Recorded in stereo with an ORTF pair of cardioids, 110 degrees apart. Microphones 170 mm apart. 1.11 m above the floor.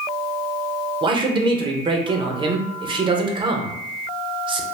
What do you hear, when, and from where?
1.0 s a man speaking: 30° right, 0.6 m